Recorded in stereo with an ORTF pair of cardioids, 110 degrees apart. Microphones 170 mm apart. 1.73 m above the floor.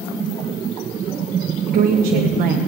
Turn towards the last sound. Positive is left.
turn(degrees=-60)